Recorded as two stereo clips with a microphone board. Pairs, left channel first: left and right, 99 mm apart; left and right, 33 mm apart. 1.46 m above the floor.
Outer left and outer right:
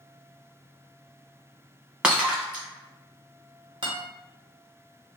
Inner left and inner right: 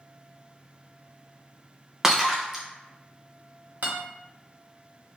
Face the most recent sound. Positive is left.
turn(degrees=-60)  # may be behind; listen again after turning